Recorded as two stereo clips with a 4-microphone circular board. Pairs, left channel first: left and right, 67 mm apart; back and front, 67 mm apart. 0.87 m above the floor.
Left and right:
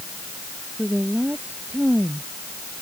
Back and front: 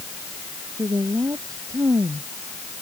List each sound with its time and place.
0.8 s a woman speaking: 25° right